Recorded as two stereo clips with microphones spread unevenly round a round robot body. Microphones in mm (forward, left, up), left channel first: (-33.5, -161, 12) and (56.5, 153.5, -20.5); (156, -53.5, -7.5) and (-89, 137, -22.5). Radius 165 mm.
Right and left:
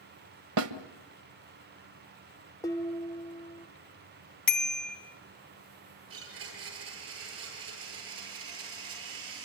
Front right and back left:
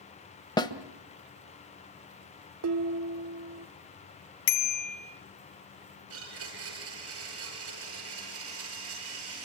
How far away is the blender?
About 8.5 m.